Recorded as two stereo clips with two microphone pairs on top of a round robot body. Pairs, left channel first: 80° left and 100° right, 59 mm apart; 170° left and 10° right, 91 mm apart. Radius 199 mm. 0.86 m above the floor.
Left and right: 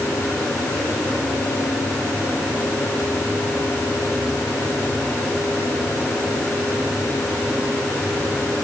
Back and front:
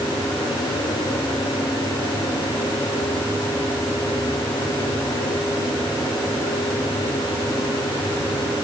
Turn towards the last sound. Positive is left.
No sound to turn to.